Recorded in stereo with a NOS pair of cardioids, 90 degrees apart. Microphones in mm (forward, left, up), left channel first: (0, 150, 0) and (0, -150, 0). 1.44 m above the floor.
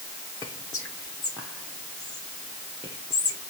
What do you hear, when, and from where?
0.4 s whispering: 10° left, 0.7 m